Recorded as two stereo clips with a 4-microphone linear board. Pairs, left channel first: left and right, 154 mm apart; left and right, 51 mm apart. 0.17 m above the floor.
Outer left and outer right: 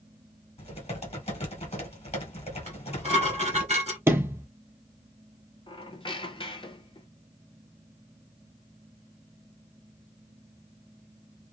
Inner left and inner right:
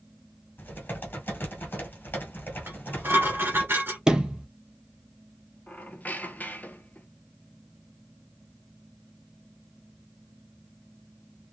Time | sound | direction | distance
0.6 | typing on a keyboard | 45° left (ahead or behind) | 1.8 m
2.7 | dishes clattering | 45° right (ahead or behind) | 1.6 m
4.1 | a sliding door | 15° right (ahead or behind) | 0.6 m
5.7 | a squeak | 35° left (ahead or behind) | 0.5 m